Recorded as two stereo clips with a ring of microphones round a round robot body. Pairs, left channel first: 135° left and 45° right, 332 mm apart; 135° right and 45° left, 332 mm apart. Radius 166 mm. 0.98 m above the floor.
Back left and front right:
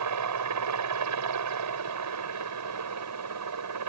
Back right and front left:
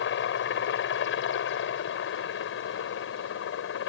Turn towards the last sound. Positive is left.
turn(degrees=-85)